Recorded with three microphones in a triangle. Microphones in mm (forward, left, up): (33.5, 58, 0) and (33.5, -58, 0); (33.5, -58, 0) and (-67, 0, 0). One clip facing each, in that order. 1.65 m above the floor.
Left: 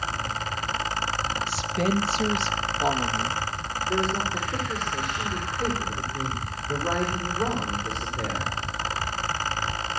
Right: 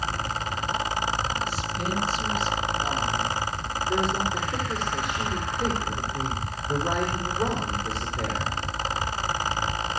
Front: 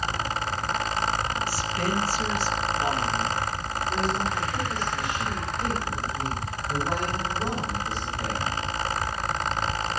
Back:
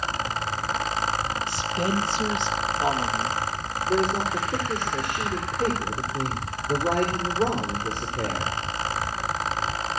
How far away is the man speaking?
About 5.5 m.